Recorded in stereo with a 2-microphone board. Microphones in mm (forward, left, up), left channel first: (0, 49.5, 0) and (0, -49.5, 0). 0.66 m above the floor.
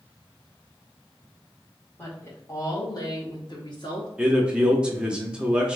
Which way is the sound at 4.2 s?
10° right (ahead or behind).